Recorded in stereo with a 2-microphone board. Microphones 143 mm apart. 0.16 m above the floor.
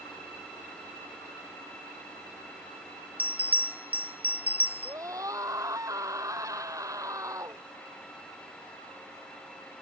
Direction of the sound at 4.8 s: 20° right (ahead or behind).